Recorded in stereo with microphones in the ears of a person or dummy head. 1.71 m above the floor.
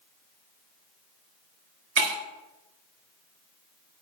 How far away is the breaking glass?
About 3.5 m.